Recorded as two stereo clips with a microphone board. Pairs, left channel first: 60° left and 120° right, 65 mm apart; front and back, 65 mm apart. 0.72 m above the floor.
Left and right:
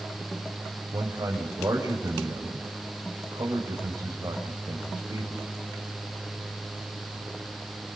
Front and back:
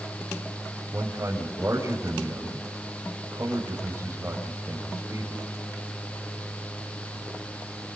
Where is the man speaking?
135° right, 5 m.